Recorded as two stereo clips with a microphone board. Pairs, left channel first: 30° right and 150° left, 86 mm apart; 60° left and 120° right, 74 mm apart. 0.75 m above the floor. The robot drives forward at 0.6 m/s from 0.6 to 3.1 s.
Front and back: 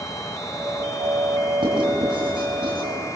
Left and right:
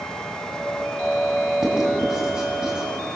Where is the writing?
160° left, 5.5 m.